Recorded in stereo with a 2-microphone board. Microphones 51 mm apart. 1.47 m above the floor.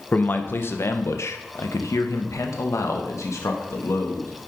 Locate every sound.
0.1 s a man speaking: 35° left (ahead or behind), 1.1 m; by 4.3 s 70° left (ahead or behind), 2.5 m